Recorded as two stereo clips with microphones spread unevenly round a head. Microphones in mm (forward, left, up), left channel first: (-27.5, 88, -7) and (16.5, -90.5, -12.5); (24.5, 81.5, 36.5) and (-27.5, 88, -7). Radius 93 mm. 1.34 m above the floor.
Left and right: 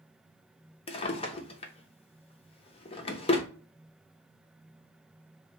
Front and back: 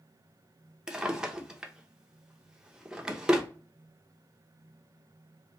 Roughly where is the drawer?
Ahead left.